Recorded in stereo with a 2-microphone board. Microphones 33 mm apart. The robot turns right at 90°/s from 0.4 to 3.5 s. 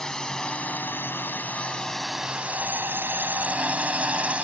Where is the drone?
20° left (ahead or behind); by 4.5 s 40° right (ahead or behind).